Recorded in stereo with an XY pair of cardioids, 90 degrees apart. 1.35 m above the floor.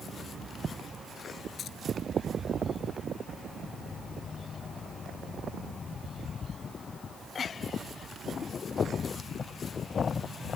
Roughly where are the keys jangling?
Ahead left.